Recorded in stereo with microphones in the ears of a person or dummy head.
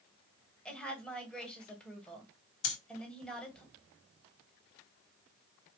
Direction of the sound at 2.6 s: 70° left (ahead or behind).